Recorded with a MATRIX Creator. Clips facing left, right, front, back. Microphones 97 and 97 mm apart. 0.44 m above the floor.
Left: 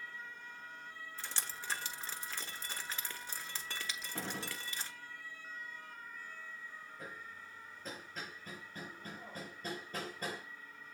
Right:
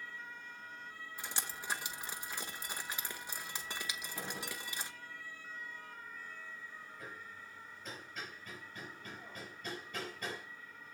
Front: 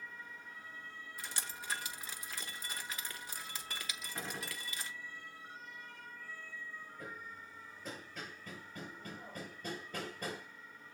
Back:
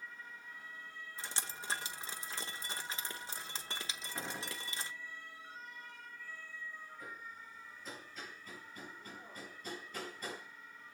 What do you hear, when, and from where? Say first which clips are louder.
1.2 s dripping: right 2 dB, back 1 dB; 150° right, 1.1 m
4.2 s a gunshot: left 3 dB, back 1 dB; 95° left, 1.9 m
7.0 s hammering: left 1 dB, front 1 dB; 35° left, 5 m